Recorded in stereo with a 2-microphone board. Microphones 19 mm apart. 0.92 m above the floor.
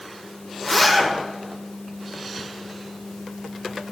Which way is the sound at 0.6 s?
5° left (ahead or behind).